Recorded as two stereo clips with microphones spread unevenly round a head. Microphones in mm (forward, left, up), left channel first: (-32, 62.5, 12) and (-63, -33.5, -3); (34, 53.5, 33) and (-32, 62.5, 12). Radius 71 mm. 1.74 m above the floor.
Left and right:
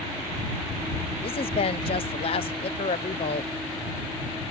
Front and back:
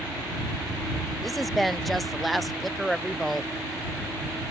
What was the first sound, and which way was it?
A woman speaking, 70° left.